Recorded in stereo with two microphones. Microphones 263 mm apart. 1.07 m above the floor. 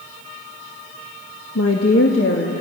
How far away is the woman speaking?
About 1.3 m.